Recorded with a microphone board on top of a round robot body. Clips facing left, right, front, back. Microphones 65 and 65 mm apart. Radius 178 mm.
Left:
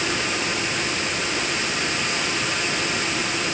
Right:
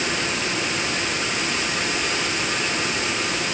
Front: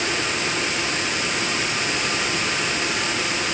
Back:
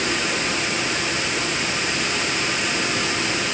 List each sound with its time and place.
Only background noise.